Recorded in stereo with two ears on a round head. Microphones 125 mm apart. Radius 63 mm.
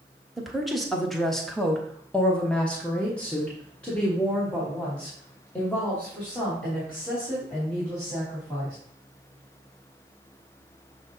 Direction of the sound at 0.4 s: Centre (ahead or behind).